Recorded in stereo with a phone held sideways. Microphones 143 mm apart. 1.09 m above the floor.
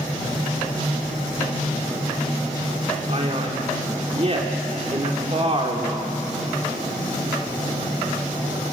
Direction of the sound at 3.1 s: 45° right (ahead or behind).